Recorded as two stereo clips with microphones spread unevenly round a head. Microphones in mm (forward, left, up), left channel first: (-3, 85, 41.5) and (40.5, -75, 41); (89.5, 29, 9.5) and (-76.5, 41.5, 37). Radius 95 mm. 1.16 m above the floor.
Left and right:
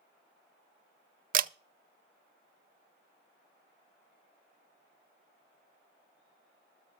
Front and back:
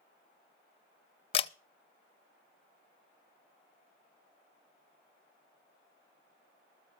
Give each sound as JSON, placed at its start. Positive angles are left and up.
{"t": 1.3, "sound": "a camera shutter", "azimuth_deg": -50, "distance_m": 0.7}